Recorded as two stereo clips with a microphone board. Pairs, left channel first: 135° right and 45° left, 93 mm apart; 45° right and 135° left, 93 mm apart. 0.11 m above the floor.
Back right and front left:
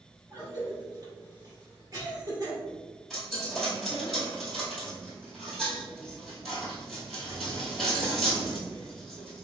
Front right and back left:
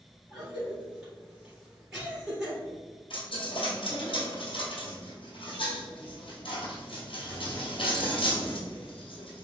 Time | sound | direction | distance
0.3 | a cough | 55° left | 1.8 m
3.1 | a dropped coin | 45° right | 1.3 m